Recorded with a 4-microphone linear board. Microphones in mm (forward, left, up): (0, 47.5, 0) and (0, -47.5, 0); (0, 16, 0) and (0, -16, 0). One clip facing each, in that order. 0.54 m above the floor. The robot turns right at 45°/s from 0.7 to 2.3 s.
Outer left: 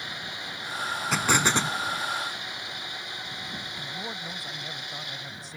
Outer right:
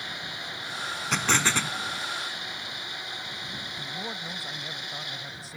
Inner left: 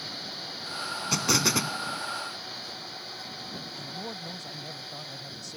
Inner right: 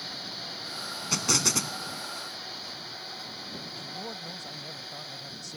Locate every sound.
1.1 s an explosion: 5° left; by 1.8 s 35° left
3.8 s a man speaking: centre (ahead or behind)